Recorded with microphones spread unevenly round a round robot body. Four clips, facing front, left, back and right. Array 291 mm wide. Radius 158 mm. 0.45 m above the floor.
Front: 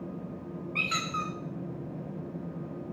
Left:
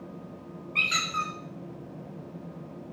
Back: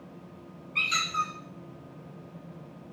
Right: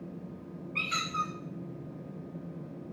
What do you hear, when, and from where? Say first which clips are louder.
0.8 s a squeak: left 3 dB, back 3 dB; 50° left, 0.8 m